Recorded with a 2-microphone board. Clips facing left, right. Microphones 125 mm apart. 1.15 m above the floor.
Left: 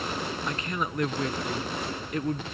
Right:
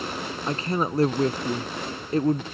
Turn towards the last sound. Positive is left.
turn(degrees=-35)  # may be behind; listen again after turning